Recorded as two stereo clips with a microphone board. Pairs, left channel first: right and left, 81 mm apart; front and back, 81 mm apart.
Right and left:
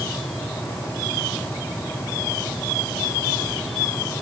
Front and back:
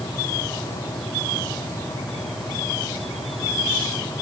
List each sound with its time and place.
Only background noise.